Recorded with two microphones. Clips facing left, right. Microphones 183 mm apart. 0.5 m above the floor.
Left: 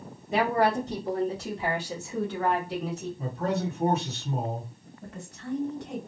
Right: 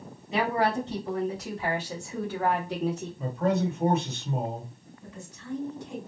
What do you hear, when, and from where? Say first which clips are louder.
0.3 s a woman speaking: left 2 dB; 50° left (ahead or behind), 1.5 m; by 3.1 s 30° right (ahead or behind), 1.3 m
3.2 s a man speaking: right 4 dB; 35° left (ahead or behind), 1.7 m
5.0 s a woman speaking: left 4 dB; 65° left (ahead or behind), 1.9 m